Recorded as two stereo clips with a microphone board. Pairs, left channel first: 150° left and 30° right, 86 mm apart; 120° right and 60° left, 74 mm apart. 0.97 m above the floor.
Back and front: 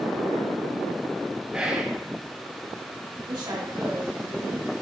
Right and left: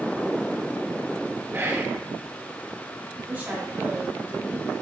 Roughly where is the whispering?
Ahead left.